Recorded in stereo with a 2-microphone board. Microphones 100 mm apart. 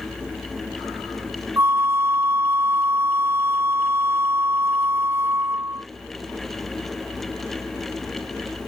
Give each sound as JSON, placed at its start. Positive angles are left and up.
{"t": 1.6, "sound": "a flute", "side_deg": -25}